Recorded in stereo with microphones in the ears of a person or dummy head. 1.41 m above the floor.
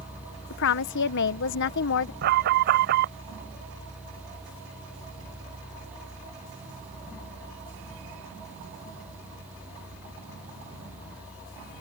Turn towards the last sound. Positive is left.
turn(degrees=-55)  # may be behind; listen again after turning